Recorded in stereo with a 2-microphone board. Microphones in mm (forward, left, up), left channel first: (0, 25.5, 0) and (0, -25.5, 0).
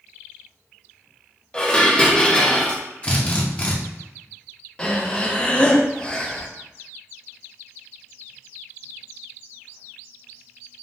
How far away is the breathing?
About 0.5 m.